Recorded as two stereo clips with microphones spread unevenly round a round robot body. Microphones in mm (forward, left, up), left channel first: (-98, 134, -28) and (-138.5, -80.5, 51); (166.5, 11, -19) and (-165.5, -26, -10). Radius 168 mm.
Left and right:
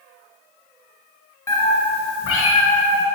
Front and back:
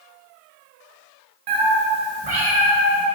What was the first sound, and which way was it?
A cat meowing, 165° left.